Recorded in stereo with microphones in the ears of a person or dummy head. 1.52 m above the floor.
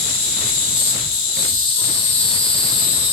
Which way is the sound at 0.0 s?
30° left (ahead or behind).